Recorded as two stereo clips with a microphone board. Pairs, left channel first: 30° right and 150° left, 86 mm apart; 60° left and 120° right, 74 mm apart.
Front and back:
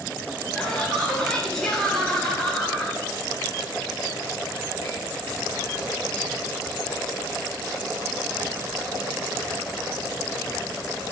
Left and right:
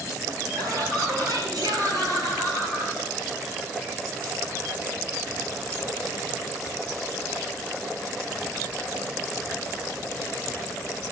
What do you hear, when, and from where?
0.6 s laughter: 115° right, 6 m